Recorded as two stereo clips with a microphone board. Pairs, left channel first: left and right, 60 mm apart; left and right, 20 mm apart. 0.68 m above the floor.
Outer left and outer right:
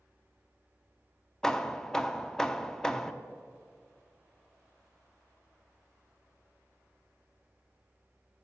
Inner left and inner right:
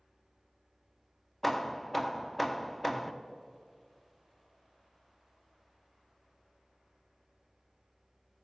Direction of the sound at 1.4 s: 10° left (ahead or behind).